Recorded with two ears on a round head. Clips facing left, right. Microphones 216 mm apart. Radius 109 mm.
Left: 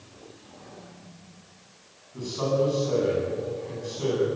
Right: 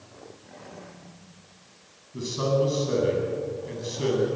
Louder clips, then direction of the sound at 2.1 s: Right 1 dB; 30° right (ahead or behind).